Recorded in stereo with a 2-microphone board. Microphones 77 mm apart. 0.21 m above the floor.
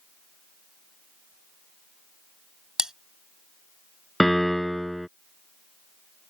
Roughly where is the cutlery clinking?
Centre.